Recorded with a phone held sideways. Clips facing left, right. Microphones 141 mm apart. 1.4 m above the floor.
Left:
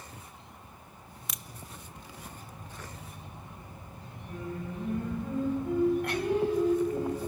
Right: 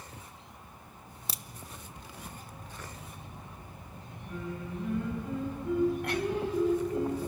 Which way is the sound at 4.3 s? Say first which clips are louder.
Left 1 dB; 45° left (ahead or behind).